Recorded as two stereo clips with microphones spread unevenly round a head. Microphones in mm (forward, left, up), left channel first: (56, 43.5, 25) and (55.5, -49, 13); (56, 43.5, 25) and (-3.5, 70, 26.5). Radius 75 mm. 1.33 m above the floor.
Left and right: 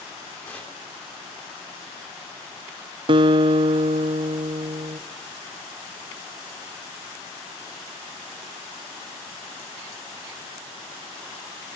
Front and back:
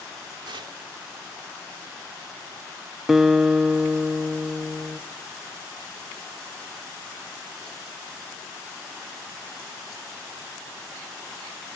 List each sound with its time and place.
0.5 s tearing paper: 165° left, 2.5 m
3.1 s a guitar: 115° right, 0.7 m